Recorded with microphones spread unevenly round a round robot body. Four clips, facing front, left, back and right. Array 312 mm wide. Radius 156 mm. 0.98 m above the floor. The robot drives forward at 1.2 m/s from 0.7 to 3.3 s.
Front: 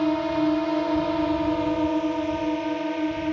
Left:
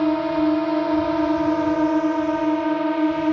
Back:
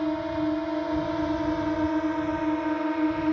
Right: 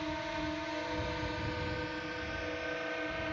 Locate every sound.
0.0 s a drone: 70° left; by 3.3 s 100° left